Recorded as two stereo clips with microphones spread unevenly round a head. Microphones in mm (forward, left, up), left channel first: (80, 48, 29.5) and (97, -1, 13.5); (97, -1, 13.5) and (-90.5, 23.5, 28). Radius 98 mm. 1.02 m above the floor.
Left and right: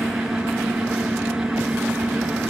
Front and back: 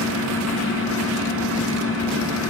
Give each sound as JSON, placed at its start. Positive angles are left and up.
{"t": 0.0, "sound": "a fan", "azimuth_deg": -165, "distance_m": 4.0}